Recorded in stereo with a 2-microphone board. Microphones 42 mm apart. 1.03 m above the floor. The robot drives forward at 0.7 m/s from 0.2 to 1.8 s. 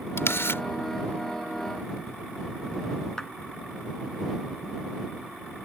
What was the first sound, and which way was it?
A camera shutter, 80° left.